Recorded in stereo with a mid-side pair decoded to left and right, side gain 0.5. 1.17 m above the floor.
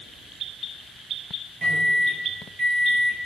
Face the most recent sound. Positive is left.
turn(degrees=-25)